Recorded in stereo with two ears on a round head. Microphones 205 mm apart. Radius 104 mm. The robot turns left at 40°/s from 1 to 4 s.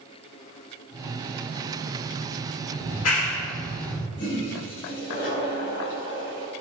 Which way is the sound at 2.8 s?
65° left (ahead or behind).